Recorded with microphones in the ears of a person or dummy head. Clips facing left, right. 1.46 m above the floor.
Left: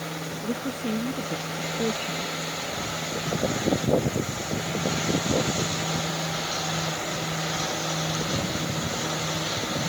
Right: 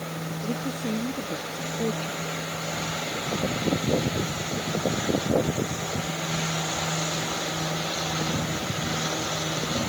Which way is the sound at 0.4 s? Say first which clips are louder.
Left 1 dB; 10° left (ahead or behind).